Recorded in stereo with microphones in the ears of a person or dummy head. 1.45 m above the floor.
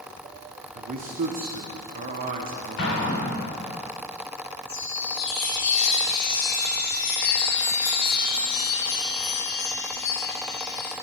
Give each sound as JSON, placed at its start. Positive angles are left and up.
{"t": 0.8, "sound": "a man speaking", "side_deg": -40, "distance_m": 0.7}
{"t": 2.8, "sound": "an explosion", "side_deg": 60, "distance_m": 2.5}
{"t": 4.7, "sound": "a chime", "side_deg": 55, "distance_m": 1.3}